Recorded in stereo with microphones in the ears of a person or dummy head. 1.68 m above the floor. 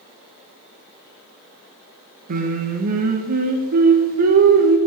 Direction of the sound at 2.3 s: 45° right (ahead or behind).